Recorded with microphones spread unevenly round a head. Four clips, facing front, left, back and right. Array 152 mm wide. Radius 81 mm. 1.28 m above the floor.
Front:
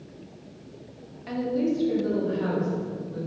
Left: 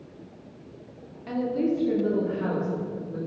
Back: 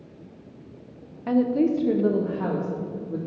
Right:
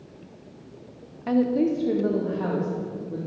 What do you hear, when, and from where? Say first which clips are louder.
1.3 s a woman speaking: right 4 dB, back 5 dB; 130° right, 1.1 m; by 3.2 s 160° right, 3 m